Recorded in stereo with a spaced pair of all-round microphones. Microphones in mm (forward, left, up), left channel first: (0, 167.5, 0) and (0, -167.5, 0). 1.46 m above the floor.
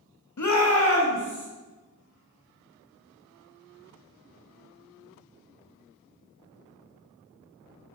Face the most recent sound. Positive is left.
turn(degrees=35)  # may be behind; listen again after turning